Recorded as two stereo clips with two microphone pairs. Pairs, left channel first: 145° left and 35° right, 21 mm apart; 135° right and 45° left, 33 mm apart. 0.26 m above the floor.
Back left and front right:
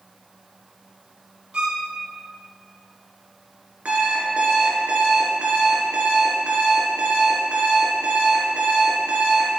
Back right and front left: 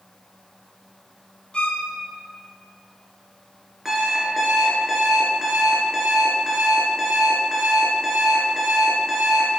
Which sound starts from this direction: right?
A violin, at 1.5 s.